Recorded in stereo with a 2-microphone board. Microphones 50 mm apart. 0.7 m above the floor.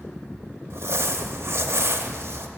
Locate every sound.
0.7 s crumpling: 60° right (ahead or behind), 0.7 m